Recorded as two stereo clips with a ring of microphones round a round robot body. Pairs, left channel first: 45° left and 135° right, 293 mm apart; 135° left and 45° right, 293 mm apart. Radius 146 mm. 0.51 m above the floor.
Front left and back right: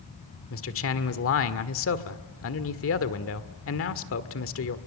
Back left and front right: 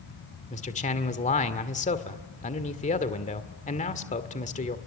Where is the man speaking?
75° left, 1.8 m.